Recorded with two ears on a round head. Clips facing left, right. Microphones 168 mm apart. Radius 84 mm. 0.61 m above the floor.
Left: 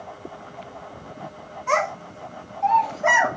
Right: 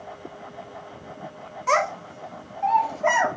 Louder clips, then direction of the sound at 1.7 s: Even; 45° right (ahead or behind).